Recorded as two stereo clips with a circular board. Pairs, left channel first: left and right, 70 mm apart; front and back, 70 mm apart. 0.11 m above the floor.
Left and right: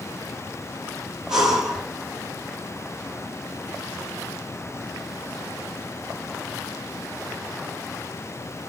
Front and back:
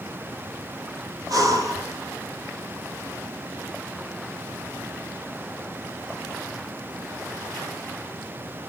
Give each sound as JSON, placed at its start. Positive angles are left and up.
{"t": 1.3, "sound": "breathing", "azimuth_deg": -170, "distance_m": 2.5}